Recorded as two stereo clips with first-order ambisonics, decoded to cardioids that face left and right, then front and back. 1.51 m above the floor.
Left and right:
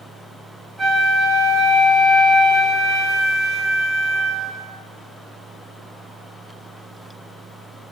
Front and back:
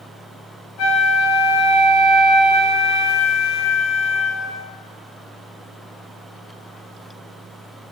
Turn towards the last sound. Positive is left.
turn(degrees=-15)